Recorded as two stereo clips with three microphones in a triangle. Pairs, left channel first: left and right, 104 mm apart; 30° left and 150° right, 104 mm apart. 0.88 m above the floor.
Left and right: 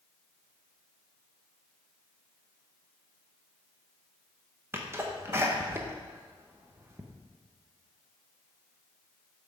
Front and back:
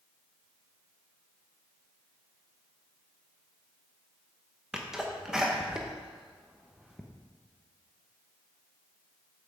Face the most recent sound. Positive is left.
turn(degrees=-75)